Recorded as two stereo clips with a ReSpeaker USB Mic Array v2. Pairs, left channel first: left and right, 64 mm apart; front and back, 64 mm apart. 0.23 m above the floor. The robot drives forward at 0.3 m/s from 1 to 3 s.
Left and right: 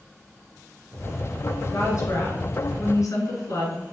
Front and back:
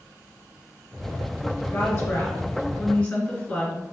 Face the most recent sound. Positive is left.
turn(degrees=80)